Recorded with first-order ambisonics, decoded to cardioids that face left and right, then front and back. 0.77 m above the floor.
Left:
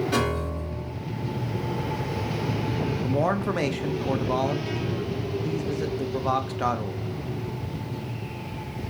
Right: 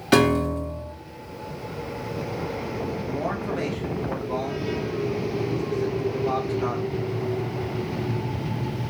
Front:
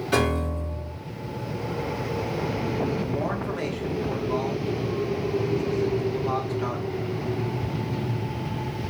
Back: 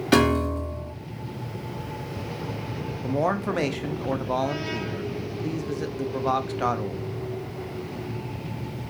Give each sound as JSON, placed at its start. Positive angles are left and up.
{"t": 0.1, "sound": "a piano", "azimuth_deg": -125, "distance_m": 1.4}
{"t": 3.0, "sound": "a man speaking", "azimuth_deg": 145, "distance_m": 0.7}